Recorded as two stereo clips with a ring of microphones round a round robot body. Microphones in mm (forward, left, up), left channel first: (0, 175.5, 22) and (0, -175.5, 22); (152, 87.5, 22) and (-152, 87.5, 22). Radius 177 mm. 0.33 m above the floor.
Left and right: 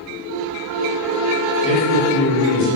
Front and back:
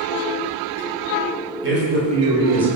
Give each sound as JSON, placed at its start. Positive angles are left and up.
{"t": 1.6, "sound": "a man speaking", "azimuth_deg": 160, "distance_m": 1.4}